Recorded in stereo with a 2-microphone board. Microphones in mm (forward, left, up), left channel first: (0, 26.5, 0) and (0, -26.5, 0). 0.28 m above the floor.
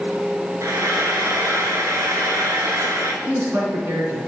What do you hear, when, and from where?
0.6 s frying: 80° right, 0.9 m
3.2 s a man speaking: 55° right (ahead or behind), 2.5 m